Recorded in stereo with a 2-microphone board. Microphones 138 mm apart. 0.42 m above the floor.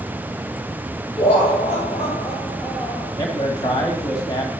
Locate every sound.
1.2 s laughter: 45° left (ahead or behind), 1.9 m
3.2 s a man speaking: 30° left (ahead or behind), 2.0 m